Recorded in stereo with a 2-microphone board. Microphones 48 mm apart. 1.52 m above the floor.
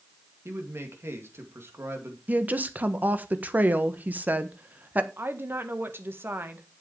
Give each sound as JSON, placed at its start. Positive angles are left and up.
{"t": 0.5, "sound": "a man speaking", "side_deg": -60, "distance_m": 2.5}
{"t": 2.3, "sound": "a woman speaking", "side_deg": -35, "distance_m": 1.2}
{"t": 5.2, "sound": "a woman speaking", "side_deg": -50, "distance_m": 1.5}